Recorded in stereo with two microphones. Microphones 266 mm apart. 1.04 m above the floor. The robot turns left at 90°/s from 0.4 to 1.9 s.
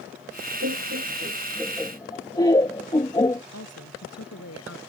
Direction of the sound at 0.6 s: 65° right (ahead or behind).